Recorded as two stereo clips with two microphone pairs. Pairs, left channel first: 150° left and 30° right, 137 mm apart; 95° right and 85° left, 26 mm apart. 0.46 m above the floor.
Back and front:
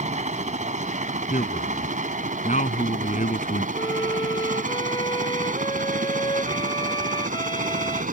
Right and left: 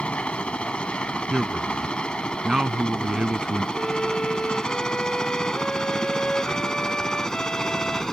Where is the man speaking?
140° left.